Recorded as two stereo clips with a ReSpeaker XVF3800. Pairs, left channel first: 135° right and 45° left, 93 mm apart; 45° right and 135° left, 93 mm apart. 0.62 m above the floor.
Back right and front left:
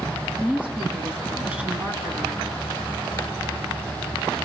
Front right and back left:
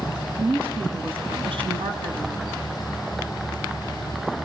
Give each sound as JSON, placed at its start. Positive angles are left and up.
{"t": 0.4, "sound": "a woman speaking", "azimuth_deg": 120, "distance_m": 4.5}